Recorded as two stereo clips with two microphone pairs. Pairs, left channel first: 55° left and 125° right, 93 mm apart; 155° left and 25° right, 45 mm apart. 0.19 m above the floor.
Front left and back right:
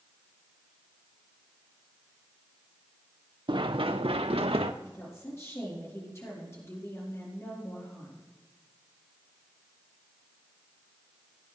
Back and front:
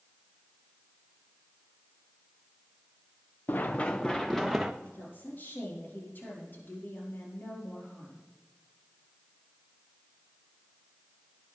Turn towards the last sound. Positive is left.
turn(degrees=115)